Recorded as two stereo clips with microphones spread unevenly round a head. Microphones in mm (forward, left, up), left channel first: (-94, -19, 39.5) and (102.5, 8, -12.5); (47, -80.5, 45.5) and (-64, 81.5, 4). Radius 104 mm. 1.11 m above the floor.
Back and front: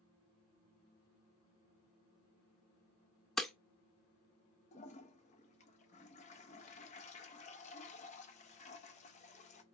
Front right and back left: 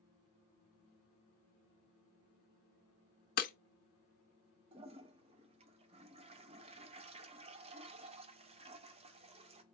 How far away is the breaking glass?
About 0.6 m.